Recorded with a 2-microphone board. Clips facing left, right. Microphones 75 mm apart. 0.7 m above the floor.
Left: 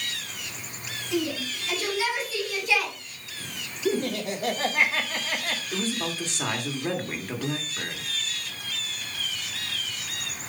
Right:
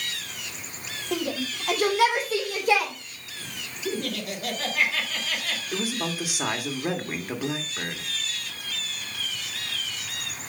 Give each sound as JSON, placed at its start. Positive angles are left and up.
{"t": 1.1, "sound": "a shout", "side_deg": -60, "distance_m": 2.5}
{"t": 3.9, "sound": "laughter", "side_deg": 30, "distance_m": 2.0}
{"t": 5.7, "sound": "a man speaking", "side_deg": -15, "distance_m": 1.3}